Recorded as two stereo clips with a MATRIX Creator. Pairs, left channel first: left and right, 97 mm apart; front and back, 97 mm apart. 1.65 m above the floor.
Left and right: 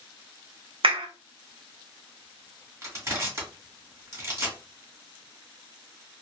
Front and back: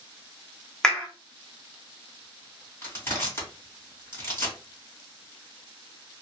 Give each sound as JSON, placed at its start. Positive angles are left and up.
{"t": 0.8, "sound": "a clap", "azimuth_deg": -80, "distance_m": 0.7}
{"t": 2.8, "sound": "crushing", "azimuth_deg": -50, "distance_m": 1.8}